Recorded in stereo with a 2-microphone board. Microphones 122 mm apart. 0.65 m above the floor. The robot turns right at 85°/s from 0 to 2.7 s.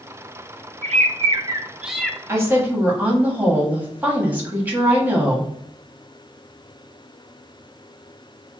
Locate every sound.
0.8 s a bird: 95° right, 0.5 m; by 2.2 s 20° left, 0.5 m
2.3 s a woman speaking: 25° right (ahead or behind), 1.2 m; by 5.5 s 15° right (ahead or behind), 1.2 m